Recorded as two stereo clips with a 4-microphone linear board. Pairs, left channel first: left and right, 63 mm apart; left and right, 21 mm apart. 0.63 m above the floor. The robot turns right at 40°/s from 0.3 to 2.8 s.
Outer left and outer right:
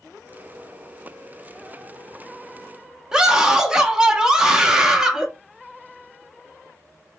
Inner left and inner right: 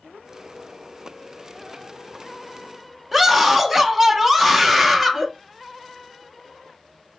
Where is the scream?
10° right (ahead or behind), 0.5 m.